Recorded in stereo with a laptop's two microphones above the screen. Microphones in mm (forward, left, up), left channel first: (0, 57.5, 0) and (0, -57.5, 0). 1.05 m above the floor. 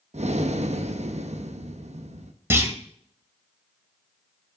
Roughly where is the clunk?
Right.